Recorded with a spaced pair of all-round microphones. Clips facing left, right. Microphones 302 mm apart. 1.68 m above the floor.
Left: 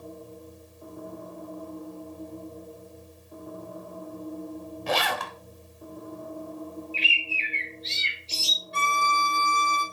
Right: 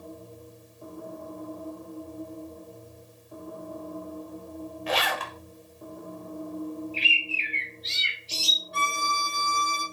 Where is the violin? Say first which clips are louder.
Left 3 dB; 30° left (ahead or behind), 0.9 m.